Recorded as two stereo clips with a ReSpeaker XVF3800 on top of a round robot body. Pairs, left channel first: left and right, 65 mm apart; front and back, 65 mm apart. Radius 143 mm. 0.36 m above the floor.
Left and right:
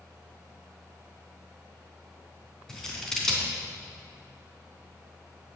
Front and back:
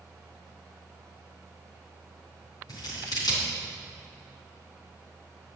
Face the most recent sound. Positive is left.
turn(degrees=10)